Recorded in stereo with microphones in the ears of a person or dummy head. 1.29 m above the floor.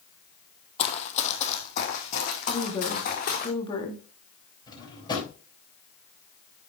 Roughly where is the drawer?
Left.